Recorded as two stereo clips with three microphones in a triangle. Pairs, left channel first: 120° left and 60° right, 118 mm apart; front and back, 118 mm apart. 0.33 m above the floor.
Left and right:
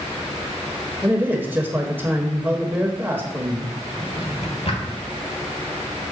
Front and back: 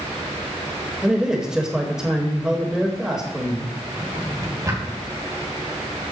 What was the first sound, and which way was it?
A man speaking, 105° right.